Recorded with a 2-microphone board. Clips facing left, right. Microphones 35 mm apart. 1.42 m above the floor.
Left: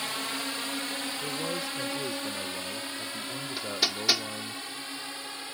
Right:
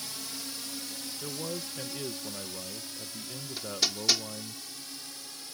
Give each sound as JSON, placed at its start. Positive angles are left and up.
{"t": 0.0, "sound": "a drone", "side_deg": 50}
{"t": 1.2, "sound": "a man speaking", "side_deg": 5}
{"t": 3.6, "sound": "hammering", "side_deg": 20}